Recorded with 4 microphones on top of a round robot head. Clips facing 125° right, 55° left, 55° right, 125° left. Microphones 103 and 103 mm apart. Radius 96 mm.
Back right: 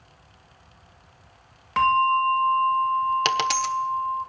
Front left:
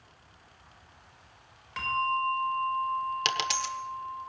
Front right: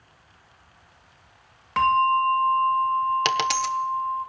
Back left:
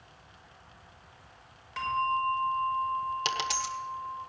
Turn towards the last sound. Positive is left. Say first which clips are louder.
# back right 8 dB, front right 9 dB
turn(degrees=-85)